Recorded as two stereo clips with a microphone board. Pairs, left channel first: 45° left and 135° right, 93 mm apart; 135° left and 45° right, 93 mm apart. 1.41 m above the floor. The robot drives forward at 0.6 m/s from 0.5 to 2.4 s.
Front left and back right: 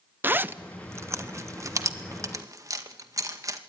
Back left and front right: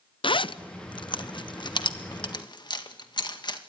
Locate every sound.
0.2 s a zipper: 155° left, 0.7 m; by 3.6 s 170° left, 1.8 m